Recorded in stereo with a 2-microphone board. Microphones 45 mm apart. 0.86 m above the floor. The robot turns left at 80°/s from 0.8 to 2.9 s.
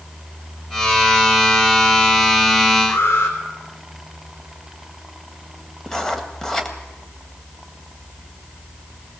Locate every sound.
2.9 s an alarm: 70° left (ahead or behind), 3.5 m
5.9 s writing: 10° left (ahead or behind), 1.8 m